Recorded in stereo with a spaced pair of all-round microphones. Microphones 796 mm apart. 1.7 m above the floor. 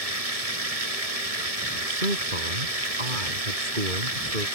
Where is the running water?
50° right (ahead or behind).